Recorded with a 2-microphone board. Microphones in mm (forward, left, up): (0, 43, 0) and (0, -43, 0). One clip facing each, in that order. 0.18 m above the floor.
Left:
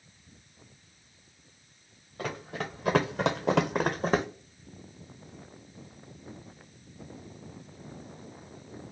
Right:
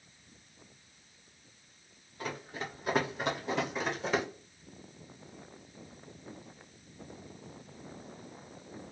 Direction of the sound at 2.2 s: 55° left (ahead or behind).